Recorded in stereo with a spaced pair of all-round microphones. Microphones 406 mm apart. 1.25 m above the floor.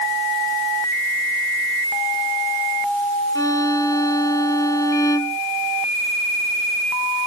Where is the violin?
10° left (ahead or behind).